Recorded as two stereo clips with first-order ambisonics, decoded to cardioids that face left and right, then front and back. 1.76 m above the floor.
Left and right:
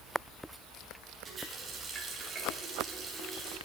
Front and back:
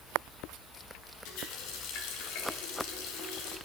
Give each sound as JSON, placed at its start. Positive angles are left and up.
{"t": 1.2, "sound": "a running tap", "azimuth_deg": -20, "distance_m": 2.5}